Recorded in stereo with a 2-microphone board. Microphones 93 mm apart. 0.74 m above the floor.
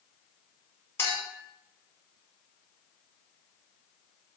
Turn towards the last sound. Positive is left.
turn(degrees=25)  # may be behind; listen again after turning